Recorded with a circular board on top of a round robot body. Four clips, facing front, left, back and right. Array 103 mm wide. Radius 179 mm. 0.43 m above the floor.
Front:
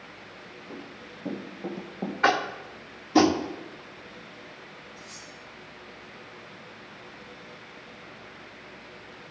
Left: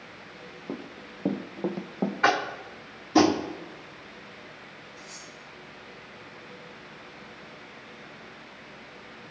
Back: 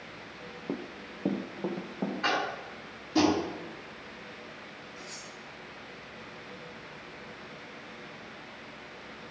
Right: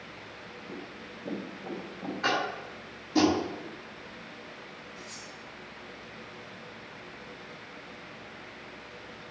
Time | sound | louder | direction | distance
0.7 | running footsteps | left 6 dB, back 6 dB | 145° left | 0.8 m
2.2 | tapping | left 4 dB, front 9 dB | 45° left | 1.3 m
5.0 | cutlery clinking | even, back 1 dB | 155° right | 5 m